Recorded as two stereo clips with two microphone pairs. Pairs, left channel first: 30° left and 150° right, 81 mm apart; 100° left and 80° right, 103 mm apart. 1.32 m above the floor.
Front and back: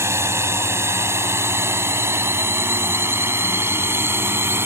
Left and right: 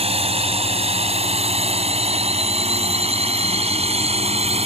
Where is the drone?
95° right; by 4.7 s 90° right.